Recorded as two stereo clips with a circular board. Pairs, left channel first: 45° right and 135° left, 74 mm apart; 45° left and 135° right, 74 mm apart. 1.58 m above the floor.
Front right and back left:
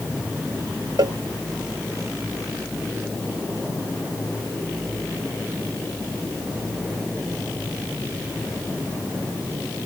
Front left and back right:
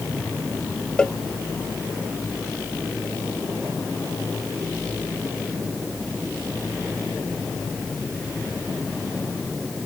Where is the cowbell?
125° left.